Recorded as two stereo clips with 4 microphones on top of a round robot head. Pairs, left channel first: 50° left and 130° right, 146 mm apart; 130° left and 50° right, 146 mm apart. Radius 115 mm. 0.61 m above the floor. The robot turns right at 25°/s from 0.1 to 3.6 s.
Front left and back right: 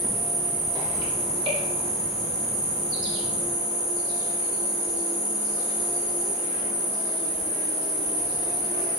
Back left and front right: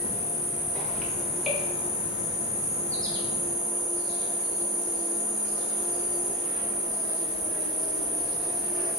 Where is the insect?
175° right, 1.2 m; by 9.0 s 85° right, 1.2 m.